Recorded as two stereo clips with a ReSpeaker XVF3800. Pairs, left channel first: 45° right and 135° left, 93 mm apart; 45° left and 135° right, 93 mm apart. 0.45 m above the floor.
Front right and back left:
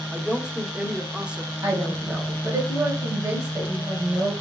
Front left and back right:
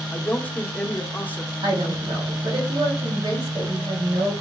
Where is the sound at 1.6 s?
165° right, 2 m.